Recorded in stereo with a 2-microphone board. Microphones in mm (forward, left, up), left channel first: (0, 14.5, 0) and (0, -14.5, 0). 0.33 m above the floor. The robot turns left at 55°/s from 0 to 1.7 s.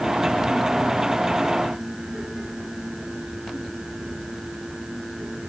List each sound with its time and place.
Only background noise.